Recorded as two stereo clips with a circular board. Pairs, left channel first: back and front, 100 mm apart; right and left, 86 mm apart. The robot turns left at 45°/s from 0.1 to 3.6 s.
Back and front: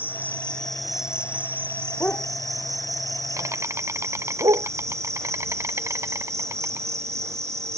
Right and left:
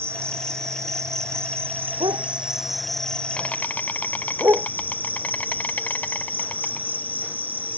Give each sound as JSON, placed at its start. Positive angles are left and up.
{"t": 0.0, "sound": "an insect", "azimuth_deg": 125}
{"t": 2.0, "sound": "a dog barking", "azimuth_deg": 110}